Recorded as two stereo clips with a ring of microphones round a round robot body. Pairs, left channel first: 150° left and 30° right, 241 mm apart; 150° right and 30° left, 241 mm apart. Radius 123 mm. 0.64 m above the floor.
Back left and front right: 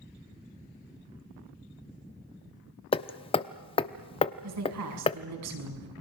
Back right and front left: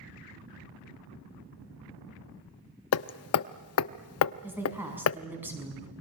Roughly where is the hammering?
Behind right.